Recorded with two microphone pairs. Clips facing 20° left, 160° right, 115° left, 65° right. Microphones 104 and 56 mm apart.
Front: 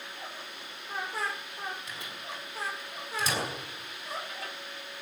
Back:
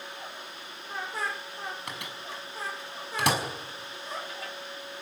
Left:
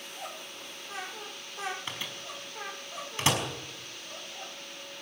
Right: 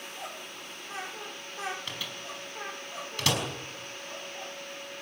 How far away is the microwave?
About 5 m.